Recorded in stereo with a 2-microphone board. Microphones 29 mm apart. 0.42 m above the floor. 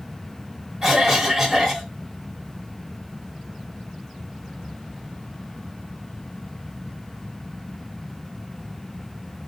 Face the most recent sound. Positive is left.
turn(degrees=-10)  # may be behind; listen again after turning